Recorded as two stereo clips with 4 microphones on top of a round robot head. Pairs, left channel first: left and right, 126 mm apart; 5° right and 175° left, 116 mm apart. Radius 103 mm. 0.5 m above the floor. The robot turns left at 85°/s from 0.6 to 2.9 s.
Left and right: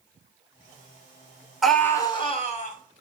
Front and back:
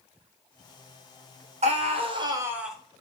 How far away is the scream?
About 2 m.